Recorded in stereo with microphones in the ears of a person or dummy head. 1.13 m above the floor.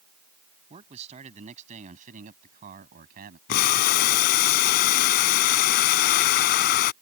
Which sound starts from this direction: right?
A man speaking, at 0.7 s.